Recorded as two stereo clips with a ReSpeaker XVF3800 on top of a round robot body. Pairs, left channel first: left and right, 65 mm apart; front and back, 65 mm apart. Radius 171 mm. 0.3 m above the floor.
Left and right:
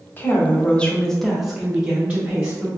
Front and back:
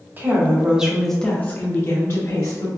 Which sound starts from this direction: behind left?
A woman speaking, at 0.2 s.